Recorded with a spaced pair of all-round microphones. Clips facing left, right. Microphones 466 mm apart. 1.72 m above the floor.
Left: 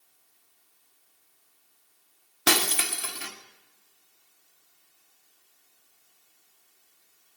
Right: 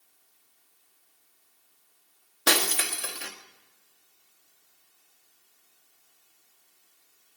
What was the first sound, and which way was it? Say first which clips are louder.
Breaking glass: left 1 dB; 25° left (ahead or behind).